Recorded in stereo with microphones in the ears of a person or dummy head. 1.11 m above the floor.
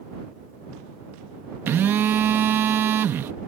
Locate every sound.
1.7 s a phone buzzing: 15° right (ahead or behind)